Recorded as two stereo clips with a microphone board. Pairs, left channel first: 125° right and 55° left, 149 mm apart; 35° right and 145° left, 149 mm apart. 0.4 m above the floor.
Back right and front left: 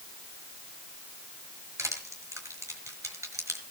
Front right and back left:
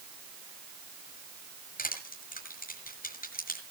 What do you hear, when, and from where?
1.8 s crushing: 15° right, 6 m